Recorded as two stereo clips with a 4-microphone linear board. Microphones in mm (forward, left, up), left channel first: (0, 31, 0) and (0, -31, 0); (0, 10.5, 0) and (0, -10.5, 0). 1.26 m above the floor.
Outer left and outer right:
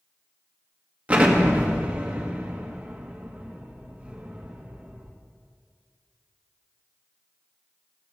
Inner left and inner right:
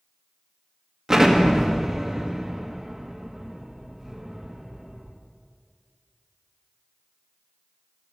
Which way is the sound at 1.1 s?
25° right (ahead or behind).